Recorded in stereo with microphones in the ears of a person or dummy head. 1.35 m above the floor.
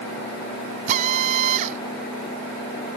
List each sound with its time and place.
0.9 s a drill: 35° right (ahead or behind)